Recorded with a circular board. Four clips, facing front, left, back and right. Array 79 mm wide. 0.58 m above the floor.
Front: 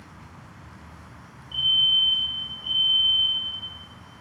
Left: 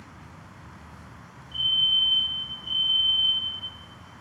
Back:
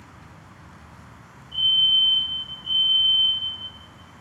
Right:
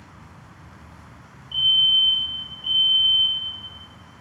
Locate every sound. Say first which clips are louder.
1.5 s a fire alarm: right 5 dB, back 2 dB; 75° right, 6.5 m